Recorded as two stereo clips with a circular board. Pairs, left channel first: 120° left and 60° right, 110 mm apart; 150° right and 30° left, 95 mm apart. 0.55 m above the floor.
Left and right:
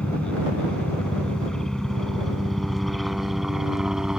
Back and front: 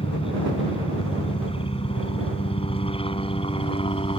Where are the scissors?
I don't hear scissors.